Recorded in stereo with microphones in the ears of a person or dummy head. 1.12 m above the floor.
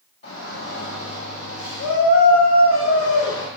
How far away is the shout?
About 4 m.